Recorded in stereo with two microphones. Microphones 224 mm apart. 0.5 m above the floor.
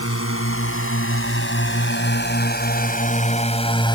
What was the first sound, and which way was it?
A drone, 75° left (ahead or behind).